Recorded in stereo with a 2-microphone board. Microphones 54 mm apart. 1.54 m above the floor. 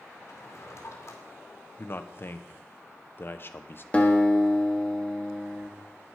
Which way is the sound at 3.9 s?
20° left (ahead or behind).